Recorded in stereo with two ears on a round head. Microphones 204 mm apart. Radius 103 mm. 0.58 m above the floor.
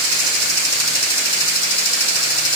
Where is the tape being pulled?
I don't hear tape being pulled.